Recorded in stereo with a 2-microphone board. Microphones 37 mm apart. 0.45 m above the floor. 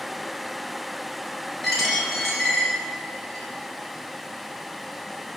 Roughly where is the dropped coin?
Centre.